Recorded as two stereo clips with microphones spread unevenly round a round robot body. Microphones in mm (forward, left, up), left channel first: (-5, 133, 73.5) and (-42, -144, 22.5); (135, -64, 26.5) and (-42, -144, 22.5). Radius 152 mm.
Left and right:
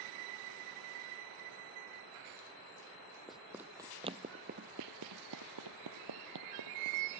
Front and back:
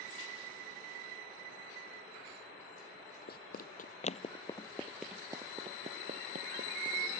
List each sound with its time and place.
3.3 s running footsteps: 5° right; by 7.0 s 125° right